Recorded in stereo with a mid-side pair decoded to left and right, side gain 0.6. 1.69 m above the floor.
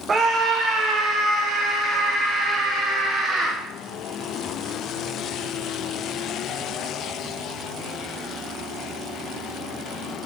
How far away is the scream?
About 1.4 m.